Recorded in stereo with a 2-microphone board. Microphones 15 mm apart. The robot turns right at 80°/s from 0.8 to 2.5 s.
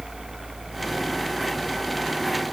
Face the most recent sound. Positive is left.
No sound to turn to.